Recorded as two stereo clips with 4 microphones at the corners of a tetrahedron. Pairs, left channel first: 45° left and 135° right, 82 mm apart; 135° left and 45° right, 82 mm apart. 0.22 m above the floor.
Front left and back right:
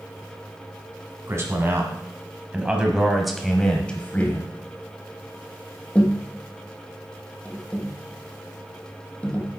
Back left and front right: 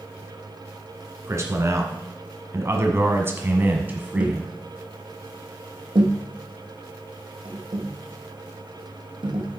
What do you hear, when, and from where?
1.3 s a man speaking: 85° right, 2 m; by 4.5 s 15° left, 1.5 m
4.2 s tapping: 30° right, 2.5 m